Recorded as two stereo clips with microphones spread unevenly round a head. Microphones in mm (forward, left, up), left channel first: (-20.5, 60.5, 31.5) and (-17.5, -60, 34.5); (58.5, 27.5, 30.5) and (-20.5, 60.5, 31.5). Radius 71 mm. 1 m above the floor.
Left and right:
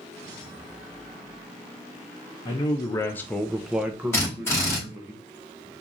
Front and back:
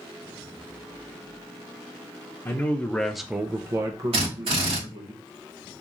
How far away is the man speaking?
About 0.8 m.